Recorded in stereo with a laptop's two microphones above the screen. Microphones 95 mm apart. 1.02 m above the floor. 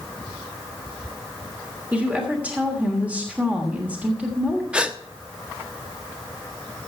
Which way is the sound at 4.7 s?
10° right (ahead or behind).